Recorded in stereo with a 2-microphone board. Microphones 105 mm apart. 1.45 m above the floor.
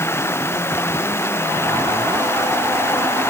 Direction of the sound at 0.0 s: 25° left (ahead or behind).